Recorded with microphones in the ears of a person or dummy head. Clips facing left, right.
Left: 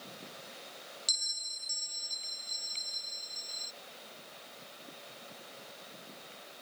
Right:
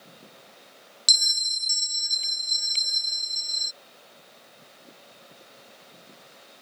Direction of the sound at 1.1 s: 75° right (ahead or behind).